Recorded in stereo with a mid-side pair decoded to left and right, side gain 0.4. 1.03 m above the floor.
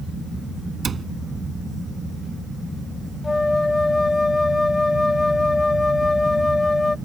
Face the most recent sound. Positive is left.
turn(degrees=20)